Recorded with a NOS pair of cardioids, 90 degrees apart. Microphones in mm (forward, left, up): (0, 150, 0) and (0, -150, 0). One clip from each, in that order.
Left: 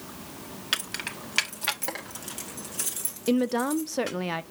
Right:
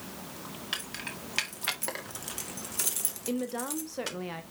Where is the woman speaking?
40° left, 0.8 m.